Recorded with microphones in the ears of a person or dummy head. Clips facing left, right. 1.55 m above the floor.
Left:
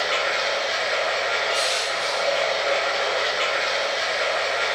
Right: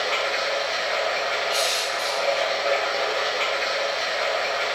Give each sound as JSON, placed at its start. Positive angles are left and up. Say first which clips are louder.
{"t": 0.0, "sound": "running water", "louder": "left 1 dB", "side_deg": 5, "distance_m": 1.1}
{"t": 1.5, "sound": "crushing", "louder": "even", "side_deg": -70, "distance_m": 0.8}